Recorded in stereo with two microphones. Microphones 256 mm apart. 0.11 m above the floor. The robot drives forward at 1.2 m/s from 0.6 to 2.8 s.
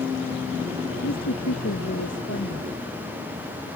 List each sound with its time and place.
1.0 s a woman speaking: 70° left (ahead or behind); by 2.7 s 60° left (ahead or behind)